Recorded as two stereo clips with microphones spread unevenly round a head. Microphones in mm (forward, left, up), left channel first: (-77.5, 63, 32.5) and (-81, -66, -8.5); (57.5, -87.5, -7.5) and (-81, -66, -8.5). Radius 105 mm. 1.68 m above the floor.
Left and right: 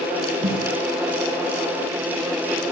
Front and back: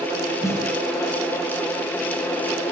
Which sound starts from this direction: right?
A snare drum, at 0.4 s.